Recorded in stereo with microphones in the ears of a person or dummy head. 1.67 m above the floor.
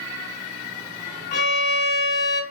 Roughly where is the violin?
Left.